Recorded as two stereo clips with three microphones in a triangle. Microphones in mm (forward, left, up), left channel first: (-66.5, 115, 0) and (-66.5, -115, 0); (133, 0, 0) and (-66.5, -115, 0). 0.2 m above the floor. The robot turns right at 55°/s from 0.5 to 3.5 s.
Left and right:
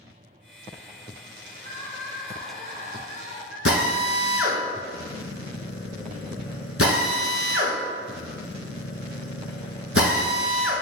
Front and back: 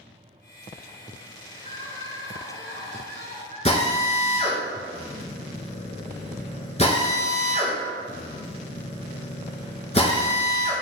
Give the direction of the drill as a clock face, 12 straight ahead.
9 o'clock.